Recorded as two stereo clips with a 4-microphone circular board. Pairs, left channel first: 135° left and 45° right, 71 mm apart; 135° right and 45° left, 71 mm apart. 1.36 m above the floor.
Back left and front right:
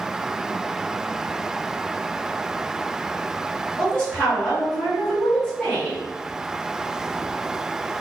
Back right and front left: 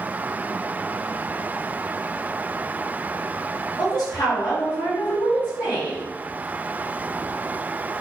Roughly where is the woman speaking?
Behind right.